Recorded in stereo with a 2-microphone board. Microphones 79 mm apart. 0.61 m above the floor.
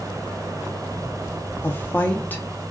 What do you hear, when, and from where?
1.6 s a woman speaking: 25° left (ahead or behind), 0.6 m